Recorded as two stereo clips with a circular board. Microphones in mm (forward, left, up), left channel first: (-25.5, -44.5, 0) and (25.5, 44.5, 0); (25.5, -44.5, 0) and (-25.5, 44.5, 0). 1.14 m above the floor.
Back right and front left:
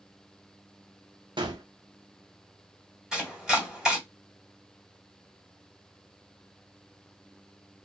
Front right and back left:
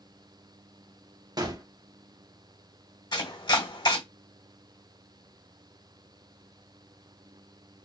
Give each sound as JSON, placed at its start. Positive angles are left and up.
{"t": 1.4, "sound": "a gunshot", "azimuth_deg": 85, "distance_m": 0.9}
{"t": 3.1, "sound": "chopping", "azimuth_deg": -20, "distance_m": 1.8}